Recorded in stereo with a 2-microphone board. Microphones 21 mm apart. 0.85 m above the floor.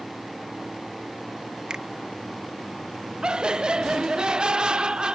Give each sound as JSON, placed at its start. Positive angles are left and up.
{"t": 1.7, "sound": "a finger snap", "side_deg": -45}
{"t": 3.2, "sound": "laughter", "side_deg": -45}